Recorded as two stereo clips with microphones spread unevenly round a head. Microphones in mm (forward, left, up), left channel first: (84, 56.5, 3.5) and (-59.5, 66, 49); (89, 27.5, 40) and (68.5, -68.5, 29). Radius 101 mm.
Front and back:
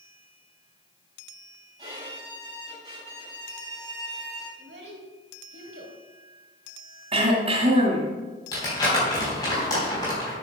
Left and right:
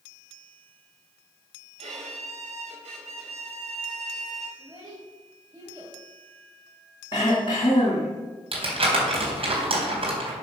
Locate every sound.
1.8 s a violin: 115° right, 6 m
4.6 s a child speaking: 175° right, 3 m
7.1 s throat clearing: 145° left, 2.5 m
8.5 s crumpling: 80° right, 4 m